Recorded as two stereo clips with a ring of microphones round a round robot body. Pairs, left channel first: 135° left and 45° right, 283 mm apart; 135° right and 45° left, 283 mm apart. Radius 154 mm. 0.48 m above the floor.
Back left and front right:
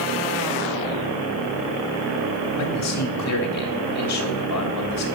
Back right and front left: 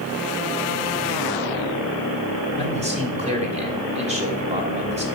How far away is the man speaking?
About 2.5 m.